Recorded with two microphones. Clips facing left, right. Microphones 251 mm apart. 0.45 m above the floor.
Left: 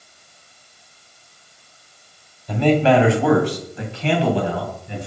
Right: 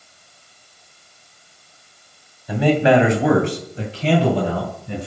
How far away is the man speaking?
About 2.5 m.